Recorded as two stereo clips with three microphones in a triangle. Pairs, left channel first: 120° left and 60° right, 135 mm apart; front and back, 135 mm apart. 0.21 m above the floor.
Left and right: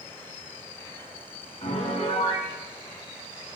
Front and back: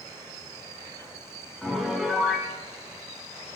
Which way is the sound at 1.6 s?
95° left.